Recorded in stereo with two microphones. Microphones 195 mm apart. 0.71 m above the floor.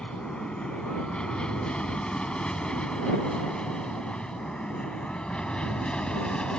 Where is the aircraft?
5° left (ahead or behind).